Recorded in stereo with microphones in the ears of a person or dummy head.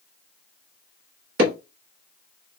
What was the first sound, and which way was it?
Hammering, 55° right (ahead or behind).